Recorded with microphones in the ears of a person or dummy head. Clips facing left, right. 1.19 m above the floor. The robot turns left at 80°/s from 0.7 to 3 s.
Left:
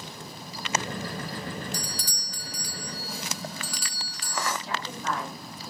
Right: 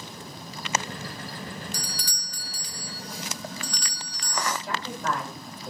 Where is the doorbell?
85° right, 0.6 m; by 4.5 s 175° left, 0.6 m.